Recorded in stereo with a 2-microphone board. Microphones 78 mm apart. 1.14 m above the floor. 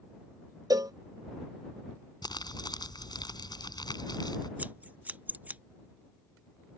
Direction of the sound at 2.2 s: 70° left (ahead or behind).